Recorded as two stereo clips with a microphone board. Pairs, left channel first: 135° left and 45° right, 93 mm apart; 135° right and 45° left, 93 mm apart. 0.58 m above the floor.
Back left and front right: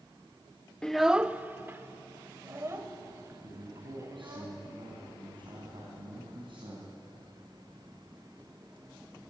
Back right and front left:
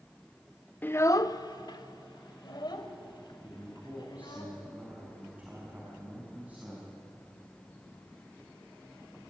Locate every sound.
0.8 s a child speaking: 160° right, 0.5 m; by 4.4 s 100° right, 3.5 m
3.4 s a man speaking: 30° right, 4.5 m